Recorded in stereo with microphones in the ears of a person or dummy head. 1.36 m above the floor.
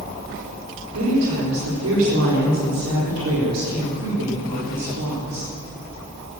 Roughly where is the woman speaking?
Right.